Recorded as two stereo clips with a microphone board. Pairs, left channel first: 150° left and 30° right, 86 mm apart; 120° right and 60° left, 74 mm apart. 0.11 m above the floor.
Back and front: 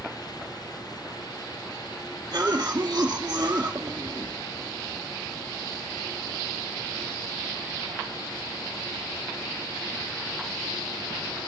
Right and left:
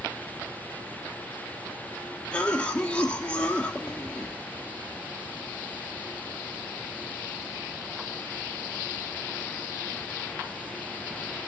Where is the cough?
70° right, 1.9 m.